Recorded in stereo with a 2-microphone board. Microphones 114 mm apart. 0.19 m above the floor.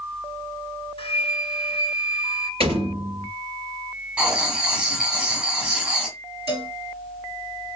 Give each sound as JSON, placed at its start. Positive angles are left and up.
{"t": 1.0, "sound": "a flute", "side_deg": 60, "distance_m": 0.7}
{"t": 2.6, "sound": "a door slam", "side_deg": -60, "distance_m": 3.0}
{"t": 4.2, "sound": "writing", "side_deg": -15, "distance_m": 1.6}
{"t": 6.5, "sound": "a cowbell", "side_deg": -60, "distance_m": 3.5}